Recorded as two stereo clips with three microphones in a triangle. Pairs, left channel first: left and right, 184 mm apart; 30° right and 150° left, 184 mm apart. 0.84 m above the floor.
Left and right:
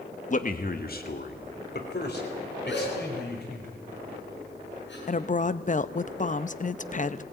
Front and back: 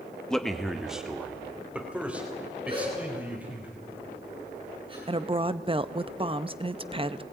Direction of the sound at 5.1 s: 105° left.